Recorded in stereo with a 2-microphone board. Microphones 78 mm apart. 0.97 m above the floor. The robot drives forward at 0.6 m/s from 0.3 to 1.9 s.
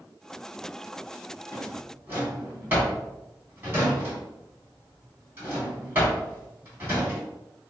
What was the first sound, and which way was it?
A drawer, 30° right (ahead or behind).